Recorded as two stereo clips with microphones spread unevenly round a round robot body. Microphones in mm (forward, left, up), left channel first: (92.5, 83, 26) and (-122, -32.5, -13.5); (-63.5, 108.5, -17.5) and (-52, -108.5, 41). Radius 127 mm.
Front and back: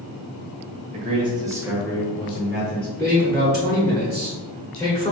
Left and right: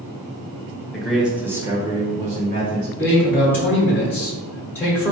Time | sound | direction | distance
0.9 | a man speaking | 165° left | 1.5 m
3.0 | a man speaking | 115° left | 1.3 m